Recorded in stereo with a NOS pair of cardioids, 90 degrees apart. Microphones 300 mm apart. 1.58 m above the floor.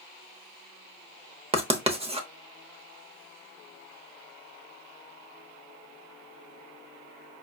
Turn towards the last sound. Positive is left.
turn(degrees=-20)